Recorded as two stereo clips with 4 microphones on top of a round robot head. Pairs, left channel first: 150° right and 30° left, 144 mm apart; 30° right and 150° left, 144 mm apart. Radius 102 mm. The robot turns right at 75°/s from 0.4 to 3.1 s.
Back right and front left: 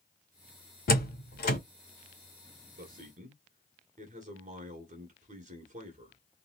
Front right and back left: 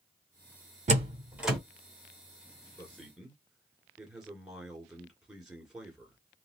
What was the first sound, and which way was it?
A door slam, 170° right.